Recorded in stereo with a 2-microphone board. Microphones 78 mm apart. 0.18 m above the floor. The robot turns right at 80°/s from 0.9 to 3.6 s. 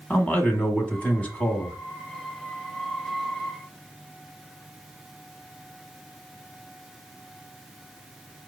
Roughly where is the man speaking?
Centre.